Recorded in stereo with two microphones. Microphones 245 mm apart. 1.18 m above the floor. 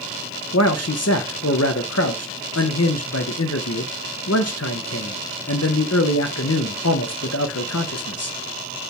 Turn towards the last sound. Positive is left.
turn(degrees=80)